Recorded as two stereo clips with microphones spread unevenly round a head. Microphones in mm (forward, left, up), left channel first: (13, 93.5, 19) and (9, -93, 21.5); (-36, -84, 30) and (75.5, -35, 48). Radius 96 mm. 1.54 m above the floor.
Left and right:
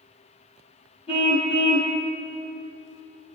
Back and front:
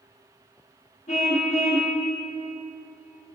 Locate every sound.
1.1 s a car horn: 150° left, 4.5 m